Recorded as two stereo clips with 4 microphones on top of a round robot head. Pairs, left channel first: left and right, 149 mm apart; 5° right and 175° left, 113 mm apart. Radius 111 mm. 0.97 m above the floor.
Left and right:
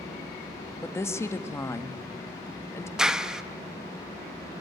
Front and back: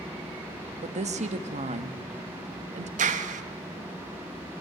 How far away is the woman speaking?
About 1.5 m.